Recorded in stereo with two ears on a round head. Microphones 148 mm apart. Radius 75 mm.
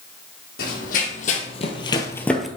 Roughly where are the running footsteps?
Left.